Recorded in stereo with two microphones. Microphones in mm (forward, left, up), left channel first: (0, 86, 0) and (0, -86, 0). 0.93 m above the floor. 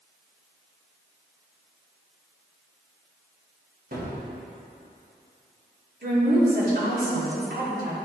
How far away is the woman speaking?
About 2.5 m.